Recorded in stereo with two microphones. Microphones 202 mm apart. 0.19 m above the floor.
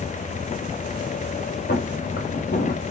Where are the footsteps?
60° left (ahead or behind), 4 m; by 2.9 s 55° left (ahead or behind), 3.5 m.